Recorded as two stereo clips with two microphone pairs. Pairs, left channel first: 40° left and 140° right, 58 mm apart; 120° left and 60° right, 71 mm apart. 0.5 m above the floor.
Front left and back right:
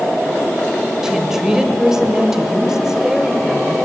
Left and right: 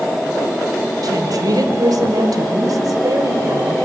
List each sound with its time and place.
1.0 s a woman speaking: 60° right, 2.5 m